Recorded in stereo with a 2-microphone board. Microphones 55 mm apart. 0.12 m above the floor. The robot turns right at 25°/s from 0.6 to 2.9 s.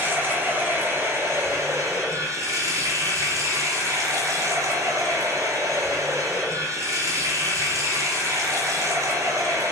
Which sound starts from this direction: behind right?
Running water, at 0.0 s.